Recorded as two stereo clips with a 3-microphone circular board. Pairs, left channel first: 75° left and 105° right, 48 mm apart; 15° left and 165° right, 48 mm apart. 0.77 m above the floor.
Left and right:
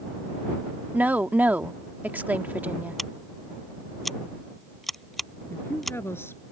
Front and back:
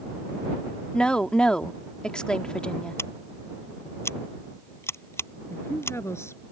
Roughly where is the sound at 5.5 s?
Ahead left.